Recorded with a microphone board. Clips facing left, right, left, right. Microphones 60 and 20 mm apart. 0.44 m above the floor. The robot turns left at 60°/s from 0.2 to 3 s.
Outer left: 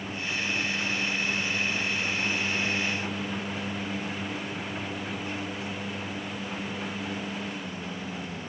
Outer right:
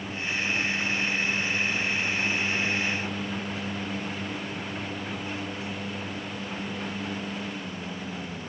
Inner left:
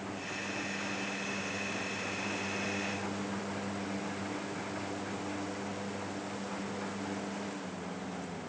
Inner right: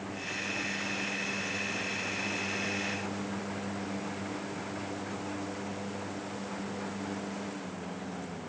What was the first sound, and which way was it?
Only background noise.